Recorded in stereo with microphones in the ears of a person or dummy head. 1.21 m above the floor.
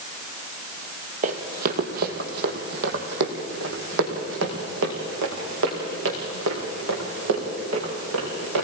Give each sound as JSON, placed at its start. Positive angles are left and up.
{"t": 1.2, "sound": "running footsteps", "side_deg": -40, "distance_m": 2.0}